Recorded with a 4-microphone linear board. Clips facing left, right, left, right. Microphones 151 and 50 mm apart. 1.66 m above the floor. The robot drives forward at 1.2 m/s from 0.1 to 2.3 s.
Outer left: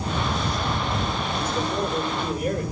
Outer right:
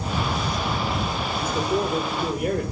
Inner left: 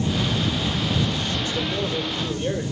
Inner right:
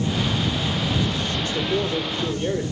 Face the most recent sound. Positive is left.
turn(degrees=-65)  # may be behind; listen again after turning